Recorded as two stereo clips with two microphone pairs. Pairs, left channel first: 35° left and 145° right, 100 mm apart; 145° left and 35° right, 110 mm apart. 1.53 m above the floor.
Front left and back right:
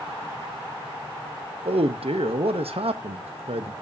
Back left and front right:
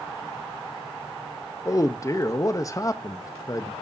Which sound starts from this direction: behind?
A man speaking, at 1.6 s.